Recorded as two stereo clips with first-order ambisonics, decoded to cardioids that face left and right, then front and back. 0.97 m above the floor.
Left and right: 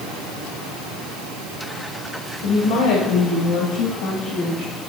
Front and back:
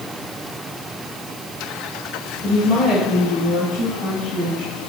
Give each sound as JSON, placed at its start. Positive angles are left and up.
{"t": 2.4, "sound": "a woman speaking", "azimuth_deg": 100, "distance_m": 4.5}